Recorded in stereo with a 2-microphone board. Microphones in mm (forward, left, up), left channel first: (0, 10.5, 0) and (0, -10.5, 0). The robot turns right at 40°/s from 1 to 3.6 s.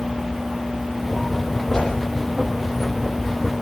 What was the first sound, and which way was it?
A whoosh, 35° left (ahead or behind).